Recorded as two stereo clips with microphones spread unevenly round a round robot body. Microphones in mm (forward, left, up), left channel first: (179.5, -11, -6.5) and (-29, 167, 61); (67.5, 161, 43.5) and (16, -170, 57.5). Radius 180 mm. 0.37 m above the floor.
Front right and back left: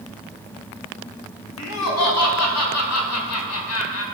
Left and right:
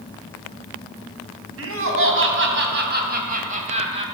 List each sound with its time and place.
1.6 s laughter: 50° right, 4 m; by 4.0 s 25° right, 3 m